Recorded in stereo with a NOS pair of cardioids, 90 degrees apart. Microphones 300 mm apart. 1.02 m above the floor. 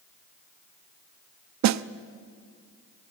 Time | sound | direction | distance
1.6 | a snare drum | 70° right | 0.7 m